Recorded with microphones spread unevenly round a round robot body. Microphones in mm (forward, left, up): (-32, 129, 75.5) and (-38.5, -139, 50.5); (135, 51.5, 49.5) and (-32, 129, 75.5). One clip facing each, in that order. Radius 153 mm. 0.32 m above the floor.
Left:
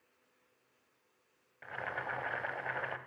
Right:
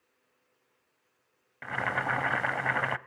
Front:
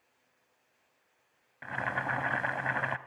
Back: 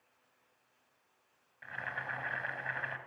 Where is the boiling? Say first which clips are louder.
Right 8 dB, front 10 dB; 65° right, 0.5 m.